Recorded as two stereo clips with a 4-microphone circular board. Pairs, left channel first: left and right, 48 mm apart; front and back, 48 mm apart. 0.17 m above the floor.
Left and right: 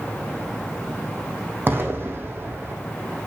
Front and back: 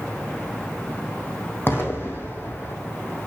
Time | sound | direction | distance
1.7 | an explosion | 45° right | 1.2 m